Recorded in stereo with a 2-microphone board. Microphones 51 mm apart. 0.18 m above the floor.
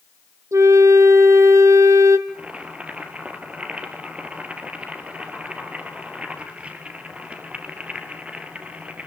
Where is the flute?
75° right (ahead or behind), 1.6 m.